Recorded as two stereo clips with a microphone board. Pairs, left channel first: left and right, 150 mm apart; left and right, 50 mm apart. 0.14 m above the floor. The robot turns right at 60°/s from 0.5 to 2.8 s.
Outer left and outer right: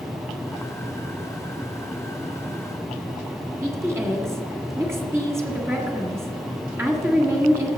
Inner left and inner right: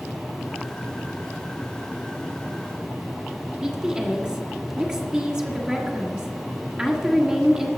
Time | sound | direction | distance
3.6 | a woman speaking | 15° right (ahead or behind) | 1.7 m